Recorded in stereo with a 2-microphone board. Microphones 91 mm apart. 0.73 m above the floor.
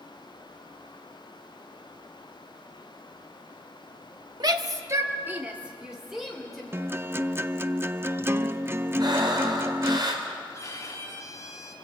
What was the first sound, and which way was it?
A shout, 50° right (ahead or behind).